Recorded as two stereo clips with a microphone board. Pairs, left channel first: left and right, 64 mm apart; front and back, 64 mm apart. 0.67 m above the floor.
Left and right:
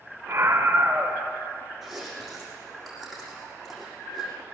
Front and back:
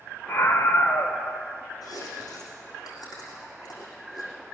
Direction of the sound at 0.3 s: 45° right.